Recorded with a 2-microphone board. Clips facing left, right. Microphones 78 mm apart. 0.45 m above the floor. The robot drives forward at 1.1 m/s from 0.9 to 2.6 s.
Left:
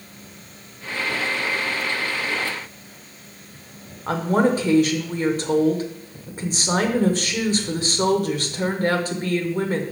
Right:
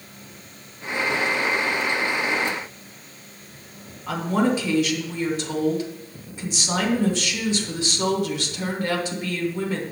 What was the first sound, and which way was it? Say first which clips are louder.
A woman speaking: left 3 dB; 45° left (ahead or behind).